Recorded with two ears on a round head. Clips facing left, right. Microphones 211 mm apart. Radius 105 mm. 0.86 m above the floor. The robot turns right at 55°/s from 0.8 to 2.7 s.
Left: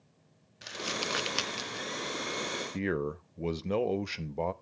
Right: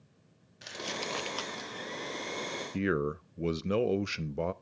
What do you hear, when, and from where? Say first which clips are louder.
0.6 s crumpling: left 1 dB; centre (ahead or behind), 0.7 m; by 1.9 s 60° left (ahead or behind), 0.7 m
2.7 s a man speaking: right 2 dB; 15° right (ahead or behind), 0.6 m